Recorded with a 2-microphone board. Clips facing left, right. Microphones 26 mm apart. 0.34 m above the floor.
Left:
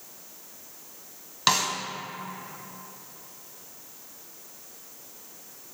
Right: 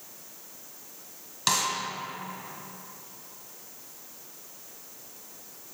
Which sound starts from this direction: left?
A snare drum, at 1.5 s.